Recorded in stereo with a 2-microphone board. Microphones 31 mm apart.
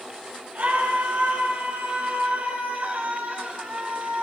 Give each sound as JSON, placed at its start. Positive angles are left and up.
{"t": 0.6, "sound": "a scream", "side_deg": -75, "distance_m": 6.0}